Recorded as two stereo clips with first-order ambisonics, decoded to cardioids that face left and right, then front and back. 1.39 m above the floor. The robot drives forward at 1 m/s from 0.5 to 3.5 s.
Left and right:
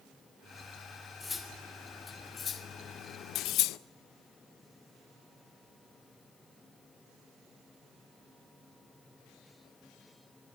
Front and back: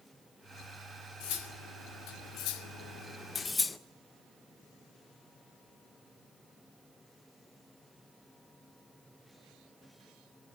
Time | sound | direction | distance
1.2 | cutlery clinking | 10° left | 2.5 m